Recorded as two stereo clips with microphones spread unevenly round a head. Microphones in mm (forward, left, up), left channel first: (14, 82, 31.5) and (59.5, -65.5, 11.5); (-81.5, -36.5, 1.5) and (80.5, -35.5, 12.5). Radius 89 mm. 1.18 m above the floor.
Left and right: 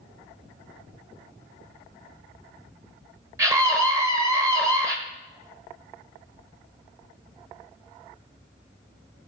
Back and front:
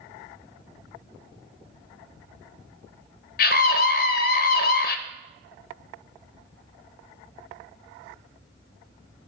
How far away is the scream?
About 0.9 m.